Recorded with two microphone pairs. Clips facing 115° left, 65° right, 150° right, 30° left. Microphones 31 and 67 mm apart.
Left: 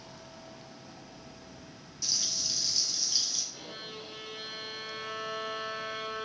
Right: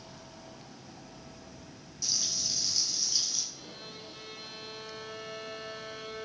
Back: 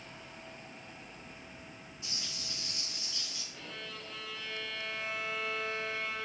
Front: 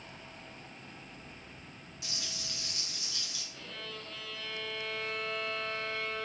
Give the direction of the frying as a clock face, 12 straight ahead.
11 o'clock.